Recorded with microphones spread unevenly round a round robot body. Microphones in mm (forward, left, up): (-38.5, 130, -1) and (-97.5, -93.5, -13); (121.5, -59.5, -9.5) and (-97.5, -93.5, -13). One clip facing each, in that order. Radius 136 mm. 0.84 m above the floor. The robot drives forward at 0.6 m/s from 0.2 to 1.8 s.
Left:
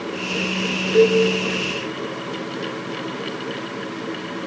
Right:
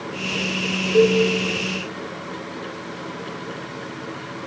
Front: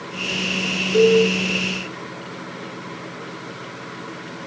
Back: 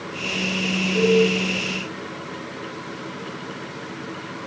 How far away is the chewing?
I don't hear chewing.